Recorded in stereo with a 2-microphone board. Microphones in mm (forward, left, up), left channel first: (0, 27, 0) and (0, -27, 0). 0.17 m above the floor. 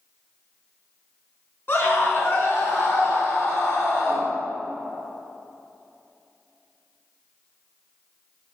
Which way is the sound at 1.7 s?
45° left (ahead or behind).